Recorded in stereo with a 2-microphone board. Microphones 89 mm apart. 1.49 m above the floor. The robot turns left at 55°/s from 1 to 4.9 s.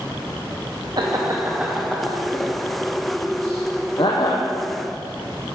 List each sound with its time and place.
1.0 s laughter: 50° right (ahead or behind), 0.9 m; by 4.5 s 40° left (ahead or behind), 0.9 m